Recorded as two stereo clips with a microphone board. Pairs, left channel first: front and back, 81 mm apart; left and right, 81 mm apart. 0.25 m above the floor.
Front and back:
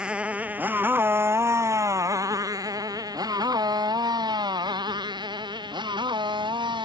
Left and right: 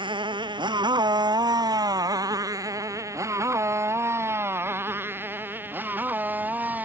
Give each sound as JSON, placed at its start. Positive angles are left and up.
{"t": 0.0, "sound": "a motorcycle", "azimuth_deg": -100}